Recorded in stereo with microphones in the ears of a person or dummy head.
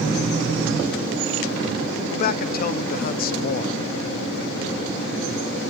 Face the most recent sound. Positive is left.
turn(degrees=50)  # may be behind; listen again after turning